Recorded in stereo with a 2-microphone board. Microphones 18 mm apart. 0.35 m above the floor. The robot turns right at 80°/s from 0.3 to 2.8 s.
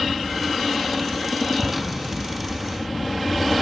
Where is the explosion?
40° right (ahead or behind); by 2.4 s 20° left (ahead or behind).